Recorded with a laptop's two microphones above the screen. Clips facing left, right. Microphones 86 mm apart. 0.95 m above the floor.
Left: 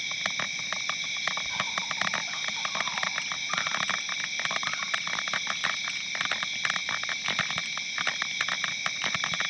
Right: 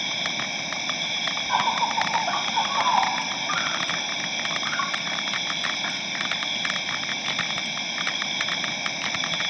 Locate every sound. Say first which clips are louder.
0.0 s an insect: right 4 dB; 75° right (ahead or behind)